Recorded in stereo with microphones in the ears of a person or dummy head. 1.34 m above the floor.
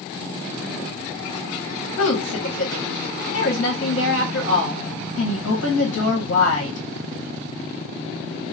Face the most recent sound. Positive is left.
turn(degrees=80)